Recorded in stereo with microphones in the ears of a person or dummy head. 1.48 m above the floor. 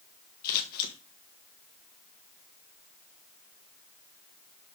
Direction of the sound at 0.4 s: 55° left (ahead or behind).